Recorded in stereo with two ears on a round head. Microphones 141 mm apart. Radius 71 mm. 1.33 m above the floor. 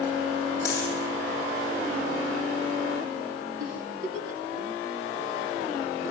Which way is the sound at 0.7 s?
20° left (ahead or behind).